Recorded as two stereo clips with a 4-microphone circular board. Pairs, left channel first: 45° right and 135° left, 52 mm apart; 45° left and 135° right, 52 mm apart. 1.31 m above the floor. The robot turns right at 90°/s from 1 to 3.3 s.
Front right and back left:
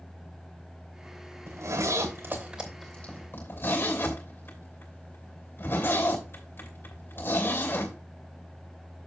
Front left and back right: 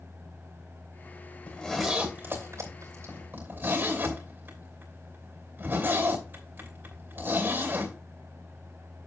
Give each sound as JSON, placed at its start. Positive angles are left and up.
{"t": 1.5, "sound": "a zipper", "azimuth_deg": 110, "distance_m": 2.5}